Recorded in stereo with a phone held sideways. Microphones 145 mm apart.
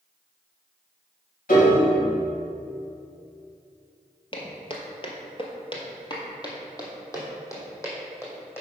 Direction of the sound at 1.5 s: 75° left (ahead or behind).